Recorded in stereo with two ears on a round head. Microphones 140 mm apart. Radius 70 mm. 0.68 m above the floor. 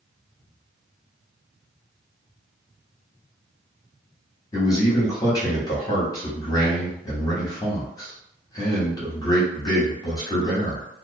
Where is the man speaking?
25° left (ahead or behind), 0.9 m.